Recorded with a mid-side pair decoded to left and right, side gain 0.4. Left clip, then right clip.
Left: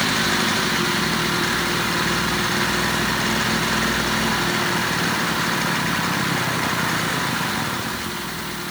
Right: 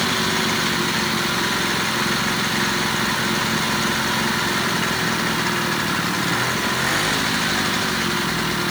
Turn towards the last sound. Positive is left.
No sound to turn to.